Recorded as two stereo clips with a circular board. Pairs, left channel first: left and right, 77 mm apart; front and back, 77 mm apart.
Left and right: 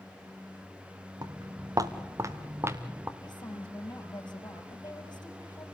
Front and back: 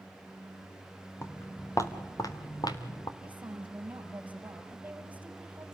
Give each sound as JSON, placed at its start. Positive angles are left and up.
{"t": 1.2, "sound": "footsteps", "azimuth_deg": -55, "distance_m": 2.0}
{"t": 3.2, "sound": "a woman speaking", "azimuth_deg": 110, "distance_m": 4.5}